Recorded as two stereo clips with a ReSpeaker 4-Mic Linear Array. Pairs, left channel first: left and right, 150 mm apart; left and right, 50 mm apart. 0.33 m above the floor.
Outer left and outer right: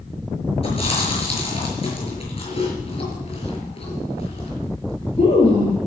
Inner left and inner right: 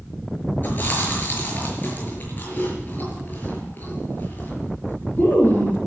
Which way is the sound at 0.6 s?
40° left (ahead or behind).